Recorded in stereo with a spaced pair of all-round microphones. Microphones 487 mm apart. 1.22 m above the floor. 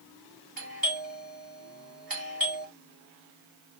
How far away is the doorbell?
About 1.5 m.